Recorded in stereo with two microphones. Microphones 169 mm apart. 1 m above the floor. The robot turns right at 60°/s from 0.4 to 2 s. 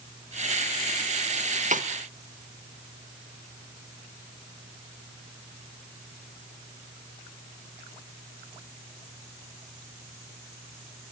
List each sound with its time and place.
1.7 s a snare drum: 45° right (ahead or behind), 1.2 m; by 1.9 s 55° right (ahead or behind), 1.2 m